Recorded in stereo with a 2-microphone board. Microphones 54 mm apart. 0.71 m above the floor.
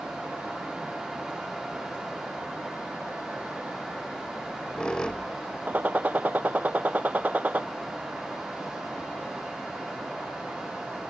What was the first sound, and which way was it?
A squeak, 15° left (ahead or behind).